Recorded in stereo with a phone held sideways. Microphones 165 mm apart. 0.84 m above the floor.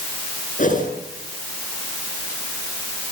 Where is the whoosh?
50° left (ahead or behind), 7.5 m.